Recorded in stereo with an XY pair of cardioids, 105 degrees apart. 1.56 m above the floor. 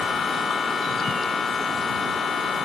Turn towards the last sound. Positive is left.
turn(degrees=45)